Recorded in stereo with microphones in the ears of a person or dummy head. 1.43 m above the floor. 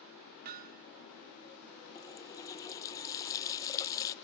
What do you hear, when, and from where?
0.5 s hammering: 55° right (ahead or behind), 1.2 m
1.9 s a running tap: 20° left (ahead or behind), 0.7 m